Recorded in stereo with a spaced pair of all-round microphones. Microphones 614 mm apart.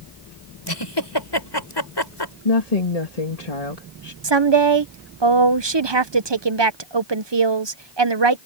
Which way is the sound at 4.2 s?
45° right (ahead or behind).